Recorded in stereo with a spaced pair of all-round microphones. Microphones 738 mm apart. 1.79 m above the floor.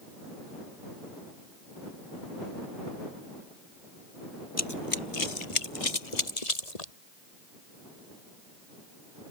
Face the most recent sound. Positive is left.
turn(degrees=55)  # may be behind; listen again after turning